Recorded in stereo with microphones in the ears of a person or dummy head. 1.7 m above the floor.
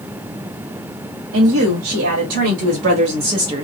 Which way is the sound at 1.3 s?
80° right.